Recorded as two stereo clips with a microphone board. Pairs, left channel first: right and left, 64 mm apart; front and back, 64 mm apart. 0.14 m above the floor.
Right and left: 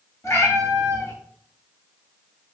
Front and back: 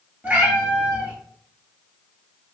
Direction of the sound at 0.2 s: 120° right.